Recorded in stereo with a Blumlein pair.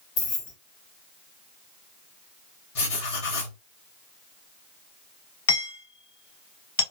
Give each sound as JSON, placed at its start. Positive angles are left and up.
{"t": 0.2, "sound": "keys jangling", "azimuth_deg": 50, "distance_m": 1.4}
{"t": 2.8, "sound": "writing", "azimuth_deg": 55, "distance_m": 1.5}
{"t": 5.5, "sound": "hammering", "azimuth_deg": 60, "distance_m": 1.8}